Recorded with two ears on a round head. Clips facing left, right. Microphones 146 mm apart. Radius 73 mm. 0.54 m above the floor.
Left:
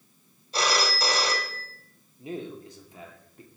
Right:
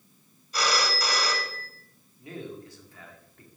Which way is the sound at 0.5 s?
25° left (ahead or behind).